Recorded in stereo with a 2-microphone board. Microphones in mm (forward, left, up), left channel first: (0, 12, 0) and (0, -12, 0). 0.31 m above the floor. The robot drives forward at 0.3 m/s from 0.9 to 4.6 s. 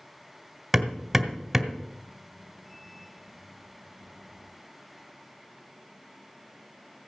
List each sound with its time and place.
0.7 s hammering: 5° right (ahead or behind), 1.6 m